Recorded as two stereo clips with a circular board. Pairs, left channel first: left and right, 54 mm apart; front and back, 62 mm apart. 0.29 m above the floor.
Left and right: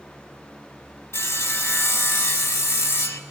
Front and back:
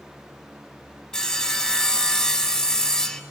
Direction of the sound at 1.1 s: 80° left.